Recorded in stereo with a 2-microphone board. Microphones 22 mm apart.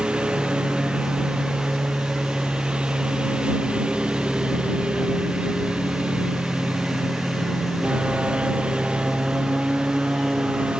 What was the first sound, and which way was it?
A lawn mower, 50° right (ahead or behind).